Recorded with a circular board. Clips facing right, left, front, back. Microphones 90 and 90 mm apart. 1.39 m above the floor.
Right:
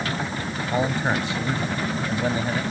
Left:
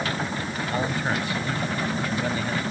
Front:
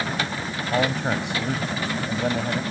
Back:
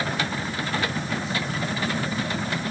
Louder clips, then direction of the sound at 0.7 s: Right 4 dB, front 7 dB; 20° right.